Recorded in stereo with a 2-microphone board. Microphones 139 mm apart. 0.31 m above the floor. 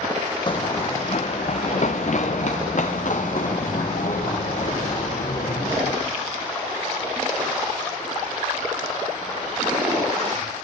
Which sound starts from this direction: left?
Running footsteps, at 0.5 s.